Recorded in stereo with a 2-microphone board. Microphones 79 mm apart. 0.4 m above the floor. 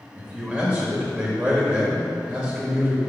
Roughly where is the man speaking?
Centre.